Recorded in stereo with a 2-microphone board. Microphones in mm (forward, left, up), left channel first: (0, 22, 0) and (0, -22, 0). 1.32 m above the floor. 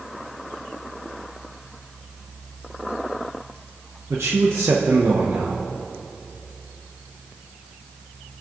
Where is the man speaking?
90° right, 1.0 m.